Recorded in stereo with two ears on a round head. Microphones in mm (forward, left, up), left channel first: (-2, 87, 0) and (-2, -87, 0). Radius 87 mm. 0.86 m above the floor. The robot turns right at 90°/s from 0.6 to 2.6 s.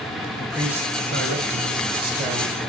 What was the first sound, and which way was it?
A man speaking, straight behind.